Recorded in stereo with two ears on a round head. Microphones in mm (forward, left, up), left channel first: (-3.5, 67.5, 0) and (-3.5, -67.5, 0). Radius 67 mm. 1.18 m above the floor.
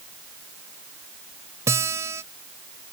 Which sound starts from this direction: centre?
A guitar, at 1.7 s.